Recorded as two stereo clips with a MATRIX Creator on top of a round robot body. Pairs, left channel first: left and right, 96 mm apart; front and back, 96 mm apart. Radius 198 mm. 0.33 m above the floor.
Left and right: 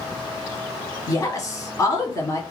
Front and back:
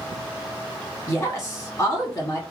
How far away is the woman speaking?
About 2.0 m.